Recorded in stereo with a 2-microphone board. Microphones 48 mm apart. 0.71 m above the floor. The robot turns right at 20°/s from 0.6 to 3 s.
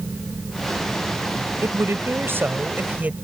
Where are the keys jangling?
No keys jangling in this recording.